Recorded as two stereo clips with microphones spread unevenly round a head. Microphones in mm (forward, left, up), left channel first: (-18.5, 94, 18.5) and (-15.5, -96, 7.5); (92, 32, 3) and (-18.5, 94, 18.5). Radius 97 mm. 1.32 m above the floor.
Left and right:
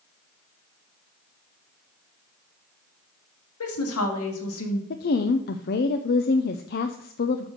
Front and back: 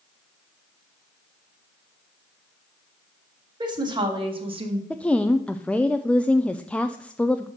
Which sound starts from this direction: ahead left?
A woman speaking, at 4.9 s.